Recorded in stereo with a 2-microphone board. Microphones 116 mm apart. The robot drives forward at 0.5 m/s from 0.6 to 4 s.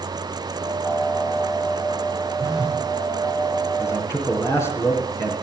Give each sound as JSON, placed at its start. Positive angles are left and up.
{"t": 2.4, "sound": "a phone buzzing", "side_deg": -5, "distance_m": 3.5}
{"t": 3.8, "sound": "a man speaking", "side_deg": 25, "distance_m": 3.5}